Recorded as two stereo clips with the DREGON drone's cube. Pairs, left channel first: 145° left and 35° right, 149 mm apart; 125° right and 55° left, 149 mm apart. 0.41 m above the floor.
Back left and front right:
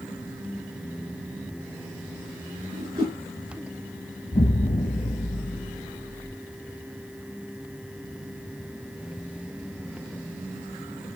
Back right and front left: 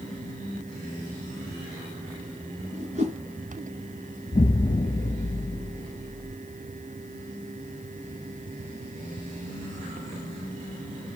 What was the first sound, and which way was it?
A whoosh, 15° left.